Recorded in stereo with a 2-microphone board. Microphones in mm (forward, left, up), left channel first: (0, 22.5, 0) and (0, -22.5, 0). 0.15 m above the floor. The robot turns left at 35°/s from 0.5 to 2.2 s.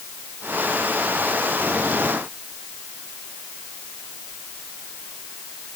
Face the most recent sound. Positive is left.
No sound to turn to.